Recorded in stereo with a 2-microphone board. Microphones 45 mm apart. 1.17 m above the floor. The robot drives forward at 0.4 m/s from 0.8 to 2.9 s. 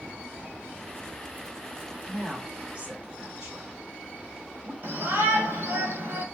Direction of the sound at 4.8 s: 55° right (ahead or behind).